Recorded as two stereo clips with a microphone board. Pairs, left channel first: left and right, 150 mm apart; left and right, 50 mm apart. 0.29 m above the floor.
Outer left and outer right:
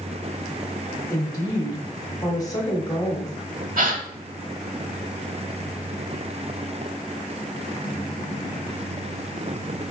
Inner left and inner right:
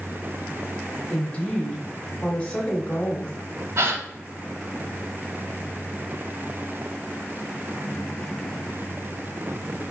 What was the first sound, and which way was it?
A woman speaking, 25° left (ahead or behind).